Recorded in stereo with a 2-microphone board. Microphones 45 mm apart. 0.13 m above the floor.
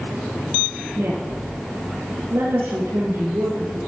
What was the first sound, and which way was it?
A woman speaking, 65° right (ahead or behind).